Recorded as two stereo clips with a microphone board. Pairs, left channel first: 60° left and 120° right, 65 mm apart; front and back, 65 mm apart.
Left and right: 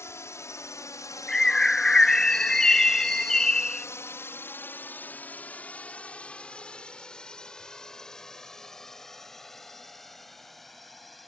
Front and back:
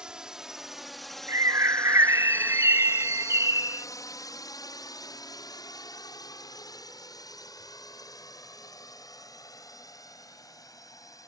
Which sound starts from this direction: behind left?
A bird, at 1.3 s.